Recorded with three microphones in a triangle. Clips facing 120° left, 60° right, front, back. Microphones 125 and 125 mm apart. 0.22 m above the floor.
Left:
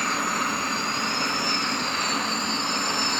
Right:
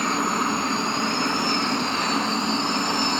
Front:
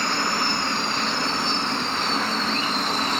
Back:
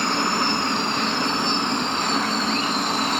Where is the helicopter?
115° right; by 3.2 s 110° right.